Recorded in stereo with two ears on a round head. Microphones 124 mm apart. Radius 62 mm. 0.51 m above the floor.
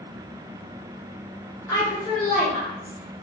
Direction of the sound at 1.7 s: 20° left (ahead or behind).